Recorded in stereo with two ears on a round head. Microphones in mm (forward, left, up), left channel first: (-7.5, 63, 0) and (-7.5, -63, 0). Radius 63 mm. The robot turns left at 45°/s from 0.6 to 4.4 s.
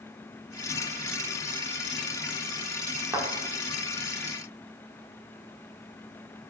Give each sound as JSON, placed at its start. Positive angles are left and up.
{"t": 3.1, "sound": "a thud", "side_deg": -20, "distance_m": 1.1}